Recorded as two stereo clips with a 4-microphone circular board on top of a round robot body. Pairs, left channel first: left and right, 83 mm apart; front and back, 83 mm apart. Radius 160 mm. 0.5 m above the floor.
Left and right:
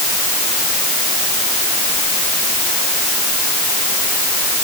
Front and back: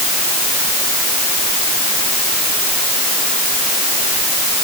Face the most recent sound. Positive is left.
No sound to turn to.